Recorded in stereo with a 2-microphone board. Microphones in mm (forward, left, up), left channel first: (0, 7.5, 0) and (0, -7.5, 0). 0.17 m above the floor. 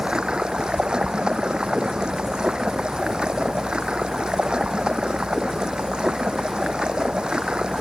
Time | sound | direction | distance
0.0 | running water | 70° right (ahead or behind) | ?